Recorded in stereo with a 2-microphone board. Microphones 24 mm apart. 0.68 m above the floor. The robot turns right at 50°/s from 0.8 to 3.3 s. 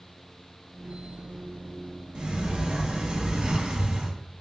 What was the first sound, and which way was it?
A sliding door, 115° right.